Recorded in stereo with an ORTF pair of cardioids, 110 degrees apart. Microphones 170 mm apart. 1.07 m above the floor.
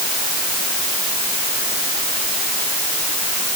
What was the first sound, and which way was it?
Only background noise.